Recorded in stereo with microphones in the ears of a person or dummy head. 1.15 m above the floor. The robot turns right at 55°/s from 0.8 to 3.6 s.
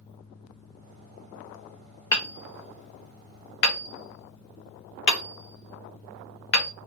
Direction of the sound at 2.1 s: 15° left (ahead or behind).